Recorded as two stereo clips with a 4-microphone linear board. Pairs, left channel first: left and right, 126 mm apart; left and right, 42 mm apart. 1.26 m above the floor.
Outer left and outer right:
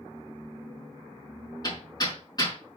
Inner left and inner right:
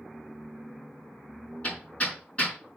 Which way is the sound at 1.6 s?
30° left (ahead or behind).